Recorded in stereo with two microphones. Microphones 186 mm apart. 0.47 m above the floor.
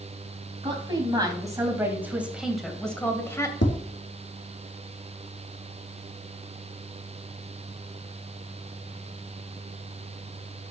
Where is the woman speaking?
25° right (ahead or behind), 4 m; by 3.5 s 20° left (ahead or behind), 2.5 m.